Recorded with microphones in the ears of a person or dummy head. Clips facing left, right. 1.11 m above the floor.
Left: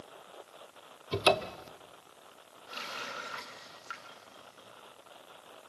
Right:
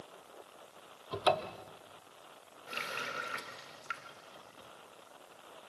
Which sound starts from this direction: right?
A running tap, at 2.7 s.